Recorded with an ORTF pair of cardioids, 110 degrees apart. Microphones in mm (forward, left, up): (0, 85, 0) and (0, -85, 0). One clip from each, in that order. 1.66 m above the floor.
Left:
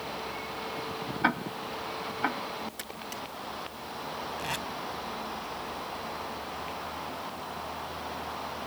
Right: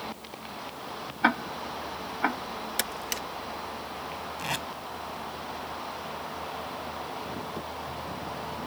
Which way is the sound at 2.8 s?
70° right.